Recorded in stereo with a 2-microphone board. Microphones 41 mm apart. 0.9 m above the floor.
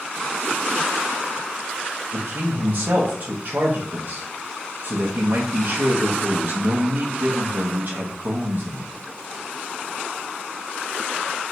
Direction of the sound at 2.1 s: 40° right (ahead or behind).